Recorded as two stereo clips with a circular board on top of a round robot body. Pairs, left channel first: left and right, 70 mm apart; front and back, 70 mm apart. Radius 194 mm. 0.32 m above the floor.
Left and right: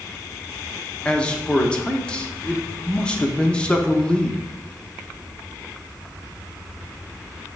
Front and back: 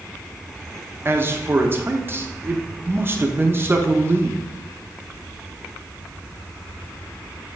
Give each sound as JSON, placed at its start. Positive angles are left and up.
{"t": 1.1, "sound": "a man speaking", "azimuth_deg": 155, "distance_m": 1.3}